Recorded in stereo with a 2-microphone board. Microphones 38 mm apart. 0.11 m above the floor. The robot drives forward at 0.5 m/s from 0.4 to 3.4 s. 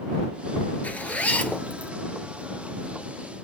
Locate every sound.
0.8 s a zipper: 45° left (ahead or behind), 0.6 m; by 1.9 s 30° left (ahead or behind), 0.9 m